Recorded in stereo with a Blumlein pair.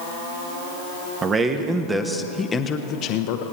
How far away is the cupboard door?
I don't hear a cupboard door.